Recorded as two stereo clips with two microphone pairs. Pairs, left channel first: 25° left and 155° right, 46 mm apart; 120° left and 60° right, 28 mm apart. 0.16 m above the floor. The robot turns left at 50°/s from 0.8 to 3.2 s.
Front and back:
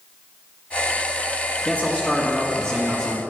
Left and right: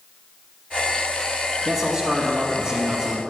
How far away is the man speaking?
About 1.7 m.